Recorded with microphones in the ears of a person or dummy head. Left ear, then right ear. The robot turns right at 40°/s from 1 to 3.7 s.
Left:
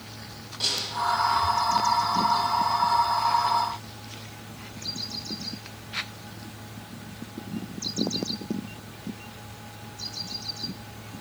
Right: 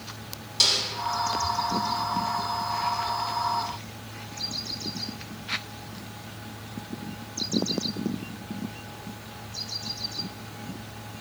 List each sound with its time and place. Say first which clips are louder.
0.6 s a snare drum: right 5 dB; 80° right, 3.5 m